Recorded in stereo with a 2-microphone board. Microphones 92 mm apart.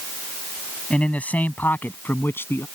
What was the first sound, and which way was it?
A man speaking, 15° left (ahead or behind).